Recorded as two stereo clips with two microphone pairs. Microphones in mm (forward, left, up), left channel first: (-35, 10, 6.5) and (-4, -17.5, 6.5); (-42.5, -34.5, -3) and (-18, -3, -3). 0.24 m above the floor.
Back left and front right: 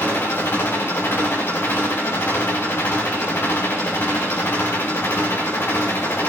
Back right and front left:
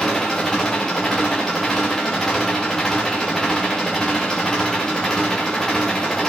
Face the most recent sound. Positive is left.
turn(degrees=155)